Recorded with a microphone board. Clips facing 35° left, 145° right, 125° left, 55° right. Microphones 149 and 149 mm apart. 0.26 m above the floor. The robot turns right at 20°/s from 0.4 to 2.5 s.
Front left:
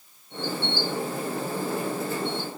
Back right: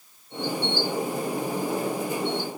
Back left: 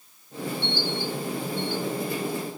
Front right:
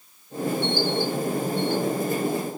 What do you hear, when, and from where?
Only background noise.